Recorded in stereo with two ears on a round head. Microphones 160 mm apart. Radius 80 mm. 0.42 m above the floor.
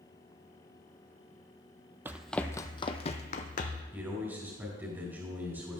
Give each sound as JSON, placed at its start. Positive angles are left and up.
{"t": 2.0, "sound": "running footsteps", "side_deg": -15, "distance_m": 0.5}
{"t": 3.9, "sound": "a man speaking", "side_deg": -15, "distance_m": 3.5}